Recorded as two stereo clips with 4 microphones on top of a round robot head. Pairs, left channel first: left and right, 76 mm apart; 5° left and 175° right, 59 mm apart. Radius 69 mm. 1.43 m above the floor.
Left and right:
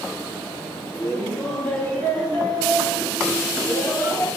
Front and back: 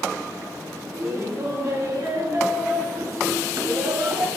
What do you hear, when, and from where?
0.9 s laughter: 160° left, 4 m; by 4.3 s 155° left, 2.5 m